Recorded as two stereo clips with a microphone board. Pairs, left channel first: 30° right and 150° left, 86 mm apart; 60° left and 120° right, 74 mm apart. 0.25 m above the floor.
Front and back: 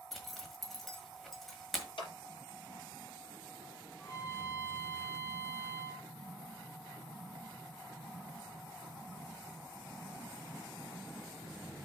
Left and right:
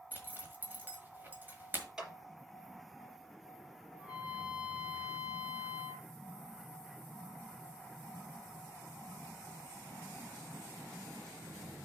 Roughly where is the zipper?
Behind right.